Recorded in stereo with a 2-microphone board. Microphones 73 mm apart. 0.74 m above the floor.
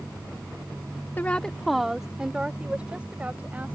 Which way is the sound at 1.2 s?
25° left (ahead or behind).